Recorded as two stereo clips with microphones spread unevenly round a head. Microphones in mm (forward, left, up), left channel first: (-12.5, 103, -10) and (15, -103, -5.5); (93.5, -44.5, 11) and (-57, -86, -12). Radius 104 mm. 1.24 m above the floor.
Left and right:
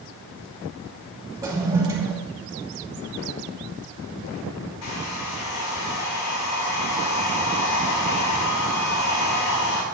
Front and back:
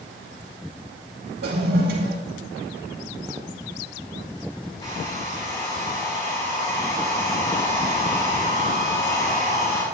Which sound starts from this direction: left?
A hair dryer, at 4.8 s.